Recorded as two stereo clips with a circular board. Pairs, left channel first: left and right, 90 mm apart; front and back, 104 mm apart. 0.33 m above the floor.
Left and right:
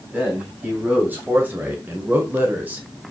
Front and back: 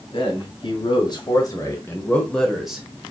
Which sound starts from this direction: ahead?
A man speaking, at 0.1 s.